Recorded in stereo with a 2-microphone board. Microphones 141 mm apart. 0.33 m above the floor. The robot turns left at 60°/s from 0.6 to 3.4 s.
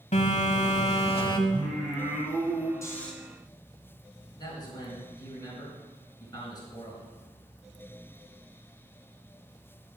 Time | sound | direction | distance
0.1 | a phone buzzing | 90° left | 1.3 m
1.5 | singing | 45° left | 2.5 m
2.8 | snoring | 25° left (ahead or behind) | 1.9 m
4.4 | a man speaking | 30° left (ahead or behind) | 3.5 m